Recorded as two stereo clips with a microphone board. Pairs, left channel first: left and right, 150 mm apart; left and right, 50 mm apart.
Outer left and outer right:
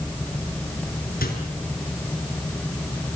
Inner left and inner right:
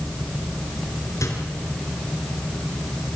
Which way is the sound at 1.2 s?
80° left.